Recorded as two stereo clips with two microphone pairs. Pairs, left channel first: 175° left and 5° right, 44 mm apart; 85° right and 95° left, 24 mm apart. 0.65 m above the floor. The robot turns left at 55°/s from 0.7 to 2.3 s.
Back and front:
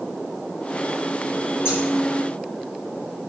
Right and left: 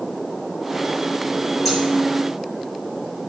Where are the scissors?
Straight behind, 4 m; by 1.8 s 170° left, 4 m.